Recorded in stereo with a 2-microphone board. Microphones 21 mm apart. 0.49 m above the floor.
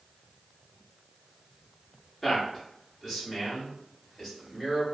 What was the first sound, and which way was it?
A man speaking, centre (ahead or behind).